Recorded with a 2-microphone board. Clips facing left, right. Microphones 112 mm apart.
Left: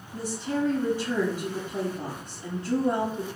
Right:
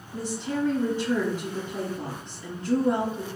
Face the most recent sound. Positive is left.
turn(degrees=15)  # may be behind; listen again after turning